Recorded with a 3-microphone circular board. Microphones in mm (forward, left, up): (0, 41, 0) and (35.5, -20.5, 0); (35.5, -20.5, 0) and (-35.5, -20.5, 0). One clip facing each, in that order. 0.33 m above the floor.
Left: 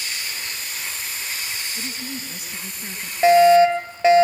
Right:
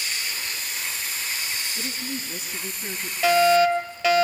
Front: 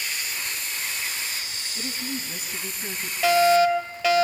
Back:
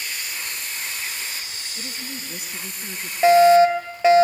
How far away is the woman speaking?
About 3 m.